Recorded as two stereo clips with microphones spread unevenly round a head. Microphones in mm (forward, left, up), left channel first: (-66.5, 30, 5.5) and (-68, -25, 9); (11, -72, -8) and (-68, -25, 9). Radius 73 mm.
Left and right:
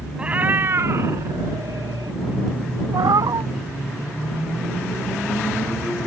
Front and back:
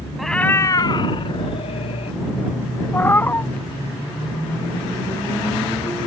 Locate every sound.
0.2 s a cat meowing: 140° right; by 2.2 s 45° right
2.9 s a cat meowing: 100° right